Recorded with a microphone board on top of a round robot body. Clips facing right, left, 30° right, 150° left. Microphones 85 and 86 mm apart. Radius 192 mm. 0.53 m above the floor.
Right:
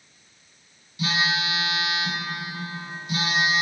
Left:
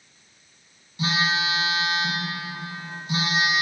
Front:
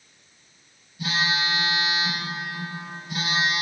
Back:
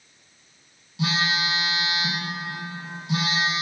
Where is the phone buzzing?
145° left, 2.5 m.